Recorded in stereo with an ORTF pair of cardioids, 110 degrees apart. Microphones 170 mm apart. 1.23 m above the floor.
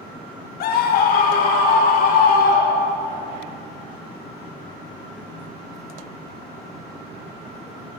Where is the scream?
65° left, 1.7 m; by 3.0 s 60° left, 4.5 m.